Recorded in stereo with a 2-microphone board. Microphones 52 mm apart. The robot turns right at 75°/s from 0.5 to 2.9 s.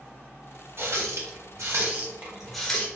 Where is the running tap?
45° right (ahead or behind), 0.9 m; by 2.9 s 25° left (ahead or behind), 0.9 m.